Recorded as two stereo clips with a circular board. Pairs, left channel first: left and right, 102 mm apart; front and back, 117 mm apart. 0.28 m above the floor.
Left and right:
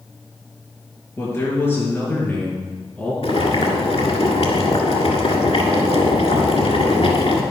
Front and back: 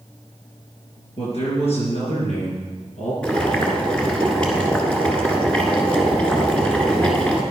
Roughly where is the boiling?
Left.